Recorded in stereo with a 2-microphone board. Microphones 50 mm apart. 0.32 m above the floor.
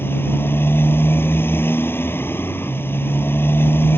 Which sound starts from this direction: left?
A motorcycle, at 0.0 s.